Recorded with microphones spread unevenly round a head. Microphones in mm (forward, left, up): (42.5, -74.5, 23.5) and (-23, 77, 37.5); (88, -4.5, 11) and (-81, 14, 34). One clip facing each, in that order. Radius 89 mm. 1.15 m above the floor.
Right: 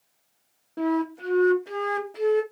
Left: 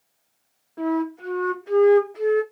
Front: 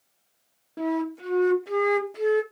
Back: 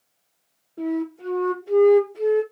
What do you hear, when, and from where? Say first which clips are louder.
0.8 s a flute: left 1 dB, back 1 dB; 15° right, 1.1 m